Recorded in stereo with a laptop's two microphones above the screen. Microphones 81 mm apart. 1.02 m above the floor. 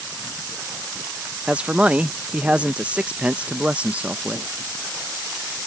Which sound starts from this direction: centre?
A man speaking, at 1.5 s.